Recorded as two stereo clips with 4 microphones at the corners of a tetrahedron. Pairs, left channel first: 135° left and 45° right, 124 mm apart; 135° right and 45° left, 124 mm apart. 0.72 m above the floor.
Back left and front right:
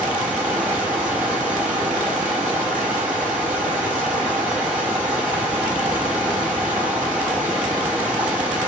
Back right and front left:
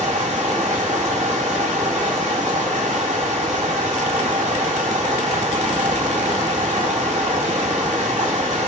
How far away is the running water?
About 5 m.